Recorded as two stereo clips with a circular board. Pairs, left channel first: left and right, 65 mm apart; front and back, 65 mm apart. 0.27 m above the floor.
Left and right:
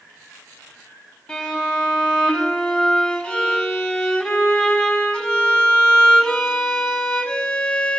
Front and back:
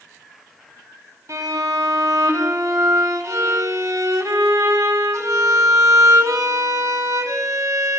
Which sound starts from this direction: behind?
A violin, at 1.3 s.